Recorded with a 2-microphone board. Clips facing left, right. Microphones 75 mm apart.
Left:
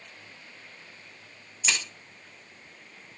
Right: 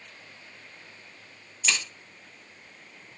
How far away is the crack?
About 0.8 m.